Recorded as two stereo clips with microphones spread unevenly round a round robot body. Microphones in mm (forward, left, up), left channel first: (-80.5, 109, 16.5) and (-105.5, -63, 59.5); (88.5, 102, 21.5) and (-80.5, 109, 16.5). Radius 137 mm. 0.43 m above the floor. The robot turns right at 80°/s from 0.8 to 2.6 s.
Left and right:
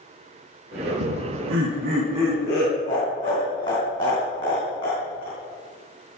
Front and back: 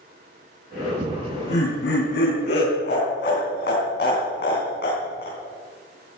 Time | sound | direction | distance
1.0 | laughter | 110° right | 4 m